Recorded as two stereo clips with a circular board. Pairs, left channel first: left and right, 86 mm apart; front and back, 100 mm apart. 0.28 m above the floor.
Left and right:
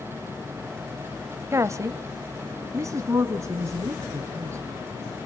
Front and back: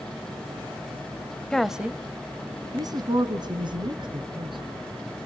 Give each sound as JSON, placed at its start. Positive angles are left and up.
{"t": 1.5, "sound": "a woman speaking", "azimuth_deg": -75, "distance_m": 1.0}